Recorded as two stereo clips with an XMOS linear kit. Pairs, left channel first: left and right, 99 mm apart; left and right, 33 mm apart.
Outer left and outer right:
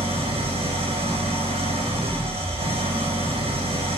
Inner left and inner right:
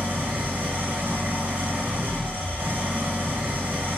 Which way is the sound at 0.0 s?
75° right (ahead or behind).